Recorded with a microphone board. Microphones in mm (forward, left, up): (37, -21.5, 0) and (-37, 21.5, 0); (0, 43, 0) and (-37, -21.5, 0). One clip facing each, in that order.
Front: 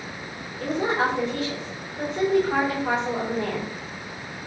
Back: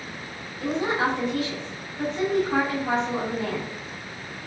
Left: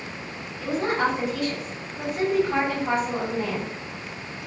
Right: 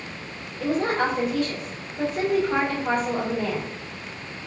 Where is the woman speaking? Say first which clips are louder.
Front 1 dB, right 1 dB; 80° right, 2.5 m.